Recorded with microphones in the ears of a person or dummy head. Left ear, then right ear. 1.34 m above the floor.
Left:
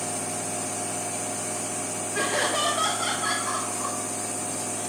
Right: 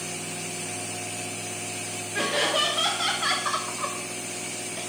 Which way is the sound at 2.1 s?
10° left (ahead or behind).